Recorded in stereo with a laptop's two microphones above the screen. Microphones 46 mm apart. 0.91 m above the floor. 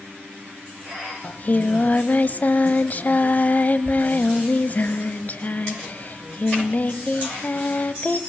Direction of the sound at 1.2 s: 40° left (ahead or behind).